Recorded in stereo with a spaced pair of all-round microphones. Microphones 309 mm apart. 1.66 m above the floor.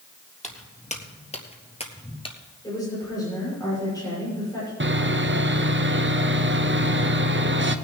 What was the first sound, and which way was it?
Footsteps, 25° left (ahead or behind).